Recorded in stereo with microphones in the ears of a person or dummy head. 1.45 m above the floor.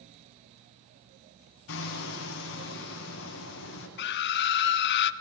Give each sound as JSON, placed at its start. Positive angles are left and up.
{"t": 1.7, "sound": "hammering", "side_deg": 80, "distance_m": 8.0}
{"t": 4.0, "sound": "a scream", "side_deg": 65, "distance_m": 1.6}